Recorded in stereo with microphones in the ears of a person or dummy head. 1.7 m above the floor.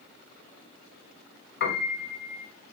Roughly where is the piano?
Left.